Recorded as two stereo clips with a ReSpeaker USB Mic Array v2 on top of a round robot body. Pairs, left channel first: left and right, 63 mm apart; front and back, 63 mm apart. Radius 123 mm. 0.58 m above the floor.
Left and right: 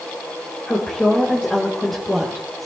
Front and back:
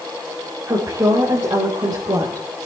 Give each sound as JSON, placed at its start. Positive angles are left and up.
{"t": 0.7, "sound": "a woman speaking", "azimuth_deg": 160, "distance_m": 3.0}